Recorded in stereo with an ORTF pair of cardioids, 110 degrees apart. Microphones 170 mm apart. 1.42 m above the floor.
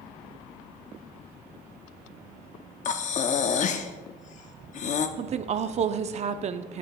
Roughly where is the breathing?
Ahead left.